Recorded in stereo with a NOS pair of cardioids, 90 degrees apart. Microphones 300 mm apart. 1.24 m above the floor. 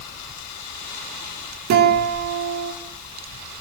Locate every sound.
1.7 s a guitar: 65° right, 2.5 m